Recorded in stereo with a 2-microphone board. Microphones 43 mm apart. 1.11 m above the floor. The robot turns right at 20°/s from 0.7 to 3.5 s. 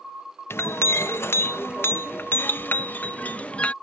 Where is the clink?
90° left; by 3.7 s 145° left.